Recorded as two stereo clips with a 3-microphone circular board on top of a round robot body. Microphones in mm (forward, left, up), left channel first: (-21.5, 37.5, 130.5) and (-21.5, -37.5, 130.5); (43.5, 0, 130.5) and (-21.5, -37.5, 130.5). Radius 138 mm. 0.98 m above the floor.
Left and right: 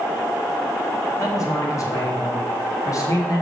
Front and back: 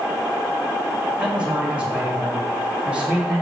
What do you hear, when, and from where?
1.2 s a man speaking: 135° left, 2.5 m